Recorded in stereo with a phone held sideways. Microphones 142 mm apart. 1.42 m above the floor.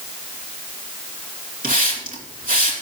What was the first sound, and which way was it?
A hiss, 85° right.